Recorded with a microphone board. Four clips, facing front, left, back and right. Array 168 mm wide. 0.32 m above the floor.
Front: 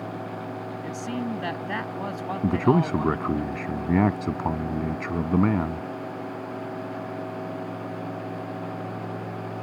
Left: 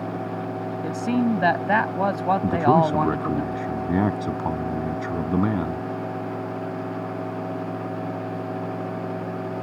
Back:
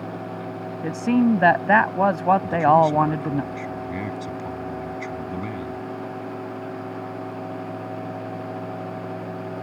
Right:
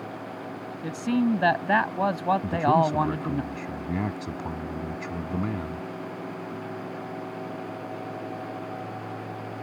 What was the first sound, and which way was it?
A man speaking, 170° left.